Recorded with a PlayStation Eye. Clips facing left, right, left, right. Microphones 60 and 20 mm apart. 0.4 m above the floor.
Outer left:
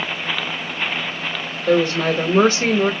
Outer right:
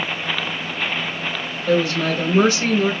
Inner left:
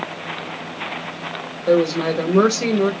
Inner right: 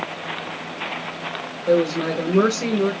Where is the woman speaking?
50° left (ahead or behind), 1.3 m.